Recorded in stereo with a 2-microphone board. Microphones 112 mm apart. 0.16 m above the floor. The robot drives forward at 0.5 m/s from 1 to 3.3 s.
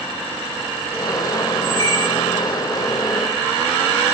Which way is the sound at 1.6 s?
55° right (ahead or behind).